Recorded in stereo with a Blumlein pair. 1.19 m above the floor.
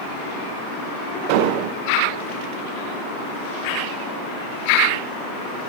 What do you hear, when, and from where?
1.3 s an explosion: 45° right, 0.5 m